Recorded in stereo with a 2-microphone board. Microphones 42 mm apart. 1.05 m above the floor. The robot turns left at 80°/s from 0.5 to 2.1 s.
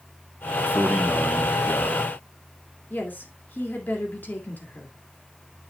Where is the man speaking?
135° right, 1.1 m; by 2.1 s 110° left, 1.1 m.